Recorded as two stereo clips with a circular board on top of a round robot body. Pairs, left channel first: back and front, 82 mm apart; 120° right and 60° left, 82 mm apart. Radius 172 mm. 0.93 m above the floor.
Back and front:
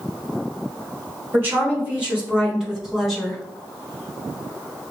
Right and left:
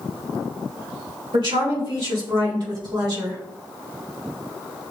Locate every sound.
1.3 s a woman speaking: 65° left, 2 m; by 3.4 s 95° left, 2.5 m